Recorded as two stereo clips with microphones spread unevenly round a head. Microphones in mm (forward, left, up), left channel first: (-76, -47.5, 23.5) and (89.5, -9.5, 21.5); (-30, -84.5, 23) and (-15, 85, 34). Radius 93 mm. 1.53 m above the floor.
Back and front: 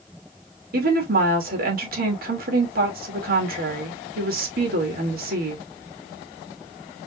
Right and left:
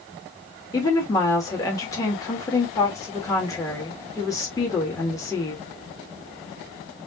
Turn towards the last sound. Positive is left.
turn(degrees=-20)